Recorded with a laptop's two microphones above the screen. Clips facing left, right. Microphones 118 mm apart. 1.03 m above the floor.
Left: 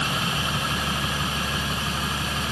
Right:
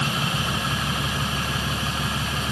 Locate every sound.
Only background noise.